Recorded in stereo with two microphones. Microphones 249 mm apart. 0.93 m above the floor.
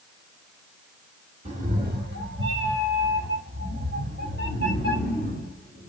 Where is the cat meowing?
25° right (ahead or behind), 0.8 m; by 5.9 s 40° right (ahead or behind), 3 m.